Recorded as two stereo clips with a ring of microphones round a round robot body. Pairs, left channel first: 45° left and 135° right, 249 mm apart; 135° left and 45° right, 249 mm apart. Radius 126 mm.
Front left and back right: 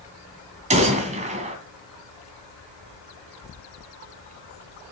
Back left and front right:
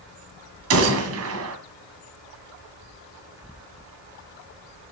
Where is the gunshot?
70° right, 2.5 m.